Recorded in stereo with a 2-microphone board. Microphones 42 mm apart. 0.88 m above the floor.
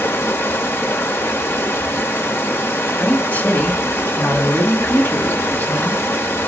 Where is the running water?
75° left (ahead or behind), 1.4 m.